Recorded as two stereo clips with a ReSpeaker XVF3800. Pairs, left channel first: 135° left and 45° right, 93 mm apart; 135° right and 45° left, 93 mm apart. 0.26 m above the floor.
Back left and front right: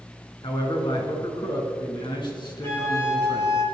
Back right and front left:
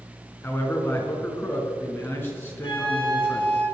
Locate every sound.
0.4 s a man speaking: 160° left, 4 m
2.6 s a flute: 165° right, 4.5 m